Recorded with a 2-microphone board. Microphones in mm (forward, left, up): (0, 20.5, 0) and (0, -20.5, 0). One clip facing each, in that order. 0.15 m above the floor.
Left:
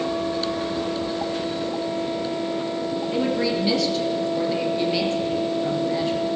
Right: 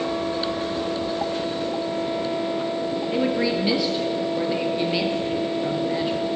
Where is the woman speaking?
15° right (ahead or behind), 3 m.